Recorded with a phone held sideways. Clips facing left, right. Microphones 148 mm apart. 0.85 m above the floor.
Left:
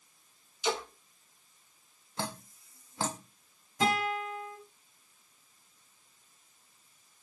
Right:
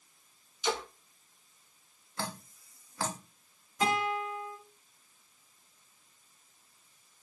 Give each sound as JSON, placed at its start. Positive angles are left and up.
{"t": 0.6, "sound": "a splash", "side_deg": 25, "distance_m": 2.0}
{"t": 2.2, "sound": "dripping", "side_deg": 20, "distance_m": 0.7}
{"t": 3.8, "sound": "a guitar", "side_deg": 70, "distance_m": 3.0}